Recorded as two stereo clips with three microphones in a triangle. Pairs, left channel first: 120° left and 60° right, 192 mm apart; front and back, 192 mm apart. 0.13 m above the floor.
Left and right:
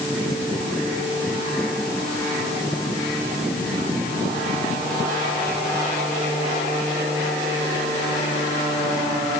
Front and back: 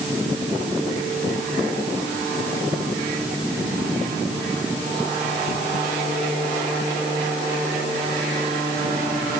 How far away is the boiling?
I don't hear boiling.